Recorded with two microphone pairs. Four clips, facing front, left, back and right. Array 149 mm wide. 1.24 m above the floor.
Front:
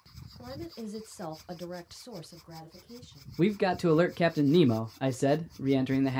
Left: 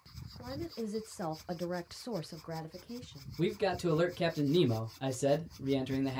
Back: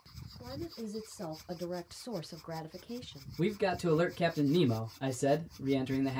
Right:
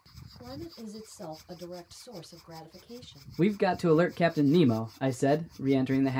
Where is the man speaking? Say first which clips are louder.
Right 6 dB, front 5 dB; 35° right, 0.5 m.